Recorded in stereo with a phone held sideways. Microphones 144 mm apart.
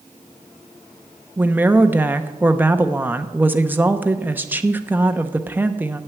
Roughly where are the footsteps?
I don't hear footsteps.